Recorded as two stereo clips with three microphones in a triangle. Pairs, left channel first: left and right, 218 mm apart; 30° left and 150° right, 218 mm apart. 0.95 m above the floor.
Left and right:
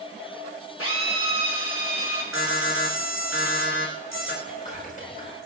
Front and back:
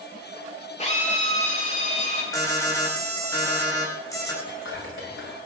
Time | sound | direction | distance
0.8 | a drill | 90° left | 5 m
2.3 | an alarm | 105° left | 5 m
4.4 | whispering | 40° left | 5 m